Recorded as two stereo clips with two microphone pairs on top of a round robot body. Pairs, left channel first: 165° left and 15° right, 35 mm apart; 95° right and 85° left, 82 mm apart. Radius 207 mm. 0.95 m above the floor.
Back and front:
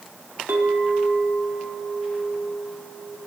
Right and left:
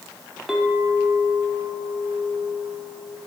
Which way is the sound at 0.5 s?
5° right.